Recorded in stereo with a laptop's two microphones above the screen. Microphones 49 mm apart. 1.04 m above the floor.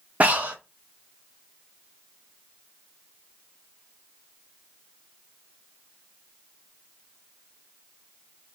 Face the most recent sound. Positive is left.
turn(degrees=-30)  # may be behind; listen again after turning